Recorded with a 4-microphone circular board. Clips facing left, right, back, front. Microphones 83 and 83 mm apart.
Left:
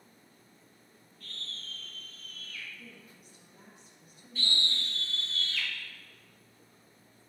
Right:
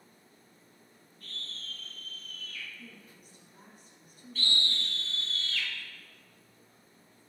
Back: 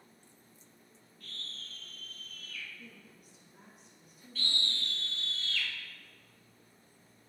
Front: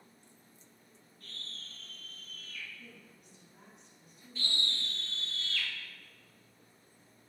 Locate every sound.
1.2 s a scream: 40° right, 1.8 m
2.8 s a woman speaking: 95° right, 1.3 m
4.3 s a scream: 45° left, 1.5 m